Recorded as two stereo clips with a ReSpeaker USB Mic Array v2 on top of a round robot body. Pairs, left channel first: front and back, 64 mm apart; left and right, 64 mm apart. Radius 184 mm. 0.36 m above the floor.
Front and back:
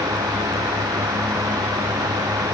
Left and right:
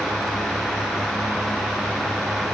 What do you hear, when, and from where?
Only background noise.